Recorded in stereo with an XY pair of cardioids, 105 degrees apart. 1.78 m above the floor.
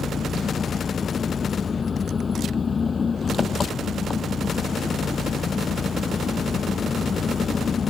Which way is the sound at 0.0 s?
35° left.